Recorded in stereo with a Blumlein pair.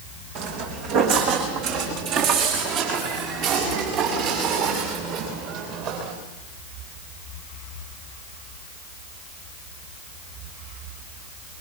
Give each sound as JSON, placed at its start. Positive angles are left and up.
{"t": 0.3, "sound": "footsteps", "azimuth_deg": -45, "distance_m": 4.0}